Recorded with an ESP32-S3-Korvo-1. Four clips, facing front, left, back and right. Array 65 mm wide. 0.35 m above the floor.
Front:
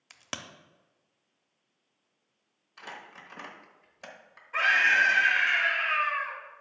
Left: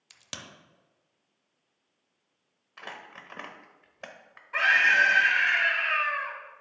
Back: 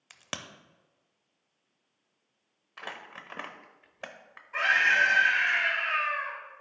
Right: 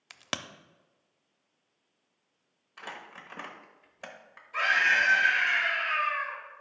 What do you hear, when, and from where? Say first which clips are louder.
0.1 s a crack: right 8 dB, even; 95° right, 0.5 m
2.8 s crumpling: even, back 2 dB; 165° left, 0.9 m
4.5 s a scream: left 3 dB, front 1 dB; 85° left, 3 m